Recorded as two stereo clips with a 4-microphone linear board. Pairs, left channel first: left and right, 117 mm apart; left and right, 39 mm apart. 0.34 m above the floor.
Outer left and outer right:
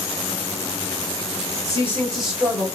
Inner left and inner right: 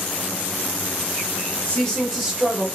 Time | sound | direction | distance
1.6 | a woman speaking | 30° left (ahead or behind) | 1.4 m